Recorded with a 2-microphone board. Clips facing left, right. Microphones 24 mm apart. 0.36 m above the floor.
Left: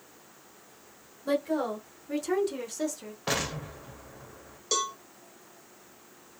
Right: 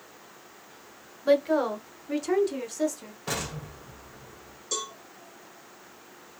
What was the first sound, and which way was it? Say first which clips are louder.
A woman speaking: right 6 dB; 35° right (ahead or behind).